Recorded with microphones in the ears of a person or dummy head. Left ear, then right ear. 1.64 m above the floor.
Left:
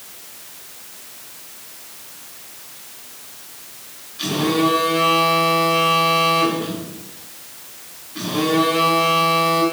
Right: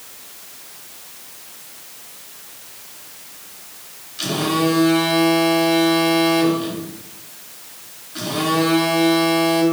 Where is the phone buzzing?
50° right (ahead or behind), 4 m.